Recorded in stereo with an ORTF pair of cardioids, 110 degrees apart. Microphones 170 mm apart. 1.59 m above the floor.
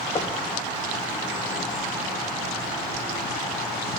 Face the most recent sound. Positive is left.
turn(degrees=25)